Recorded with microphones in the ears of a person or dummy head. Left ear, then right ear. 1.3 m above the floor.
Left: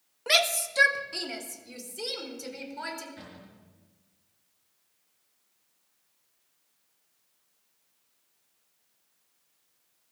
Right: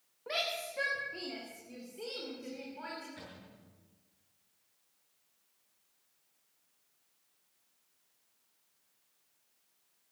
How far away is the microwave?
No microwave in this recording.